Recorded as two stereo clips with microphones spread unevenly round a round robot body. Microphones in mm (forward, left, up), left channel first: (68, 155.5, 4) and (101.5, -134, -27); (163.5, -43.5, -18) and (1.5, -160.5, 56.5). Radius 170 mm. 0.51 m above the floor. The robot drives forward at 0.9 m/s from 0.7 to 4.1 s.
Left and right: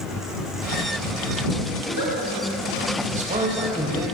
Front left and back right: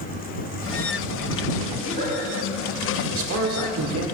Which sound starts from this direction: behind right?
A man speaking, at 3.1 s.